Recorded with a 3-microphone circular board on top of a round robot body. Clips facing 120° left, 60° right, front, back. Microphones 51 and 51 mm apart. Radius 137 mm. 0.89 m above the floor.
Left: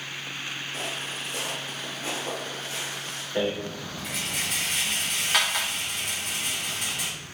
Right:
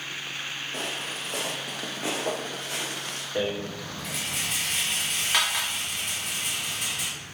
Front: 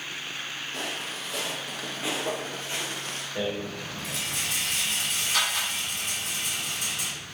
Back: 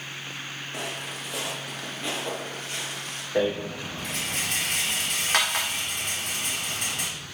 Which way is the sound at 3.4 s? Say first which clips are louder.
Left 1 dB, back 6 dB; 150° right.